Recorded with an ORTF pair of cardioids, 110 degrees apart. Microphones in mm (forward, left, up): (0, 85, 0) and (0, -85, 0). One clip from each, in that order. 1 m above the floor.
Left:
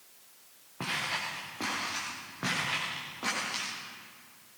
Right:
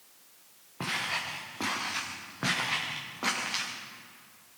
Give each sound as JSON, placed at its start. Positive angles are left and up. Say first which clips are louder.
{"t": 0.8, "sound": "footsteps", "louder": "right 1 dB", "azimuth_deg": -10, "distance_m": 6.5}